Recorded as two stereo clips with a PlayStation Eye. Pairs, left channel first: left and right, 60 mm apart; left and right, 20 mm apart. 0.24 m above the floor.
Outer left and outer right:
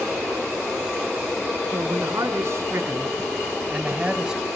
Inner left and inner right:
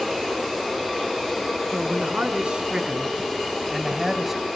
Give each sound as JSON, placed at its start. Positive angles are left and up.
{"t": 1.7, "sound": "a man speaking", "side_deg": -65, "distance_m": 3.5}